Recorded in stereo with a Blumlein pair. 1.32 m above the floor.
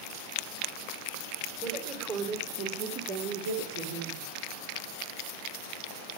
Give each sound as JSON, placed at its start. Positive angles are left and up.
{"t": 1.6, "sound": "a woman speaking", "azimuth_deg": -25, "distance_m": 5.0}